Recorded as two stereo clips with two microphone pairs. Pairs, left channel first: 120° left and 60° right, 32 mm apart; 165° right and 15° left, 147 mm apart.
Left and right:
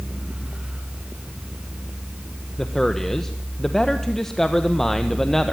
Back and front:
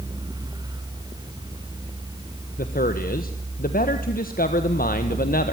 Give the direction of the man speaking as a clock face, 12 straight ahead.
5 o'clock.